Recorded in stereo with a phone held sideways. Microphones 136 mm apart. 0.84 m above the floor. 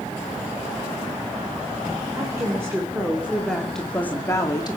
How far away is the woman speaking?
About 3 m.